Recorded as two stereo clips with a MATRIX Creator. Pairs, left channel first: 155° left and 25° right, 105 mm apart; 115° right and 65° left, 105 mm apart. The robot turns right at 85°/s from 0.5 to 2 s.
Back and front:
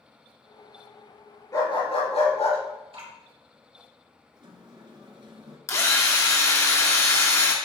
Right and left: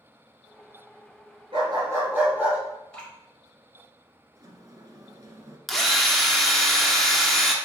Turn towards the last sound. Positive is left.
turn(degrees=160)